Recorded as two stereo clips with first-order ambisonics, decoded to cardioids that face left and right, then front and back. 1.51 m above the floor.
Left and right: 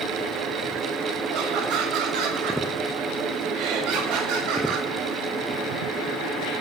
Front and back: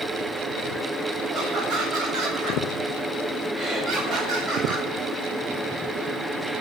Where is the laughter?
80° right, 8 m.